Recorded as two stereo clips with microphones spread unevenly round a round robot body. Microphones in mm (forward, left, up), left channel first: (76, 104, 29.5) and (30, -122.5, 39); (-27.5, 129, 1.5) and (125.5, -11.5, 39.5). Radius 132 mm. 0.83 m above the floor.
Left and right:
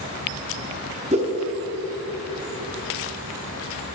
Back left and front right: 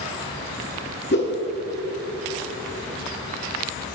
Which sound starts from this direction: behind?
A whoosh, at 1.1 s.